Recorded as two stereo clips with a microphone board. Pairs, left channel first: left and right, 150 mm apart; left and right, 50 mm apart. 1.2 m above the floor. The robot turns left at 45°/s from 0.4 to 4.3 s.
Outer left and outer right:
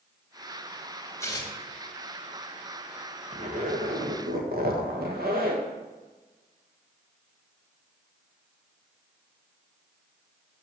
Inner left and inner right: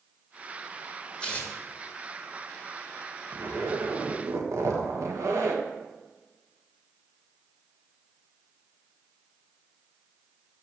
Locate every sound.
1.2 s tearing paper: 20° left (ahead or behind), 2 m; by 1.5 s 30° left (ahead or behind), 2 m
3.3 s a zipper: 45° right, 1.4 m; by 5.6 s 90° right, 1.4 m